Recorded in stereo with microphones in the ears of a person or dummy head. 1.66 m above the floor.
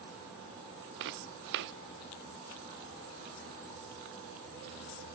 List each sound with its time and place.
1.0 s footsteps: 65° right (ahead or behind)